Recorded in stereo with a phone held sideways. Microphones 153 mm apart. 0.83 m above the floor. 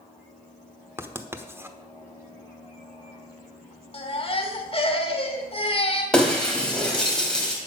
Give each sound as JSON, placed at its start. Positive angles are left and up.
{"t": 1.0, "sound": "writing", "side_deg": -15, "distance_m": 1.0}
{"t": 3.9, "sound": "a baby crying", "side_deg": 40, "distance_m": 1.9}
{"t": 6.1, "sound": "breaking glass", "side_deg": 5, "distance_m": 3.0}